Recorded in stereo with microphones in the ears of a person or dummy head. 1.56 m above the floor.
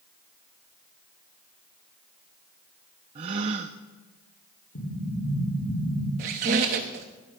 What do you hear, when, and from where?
3.1 s a gasp: 25° right (ahead or behind), 0.5 m
4.8 s an explosion: 70° left (ahead or behind), 6 m
6.2 s a squeak: 35° right (ahead or behind), 0.9 m